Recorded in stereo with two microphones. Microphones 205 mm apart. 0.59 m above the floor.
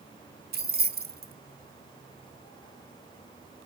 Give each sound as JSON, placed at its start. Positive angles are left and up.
{"t": 0.5, "sound": "keys jangling", "side_deg": -50, "distance_m": 0.8}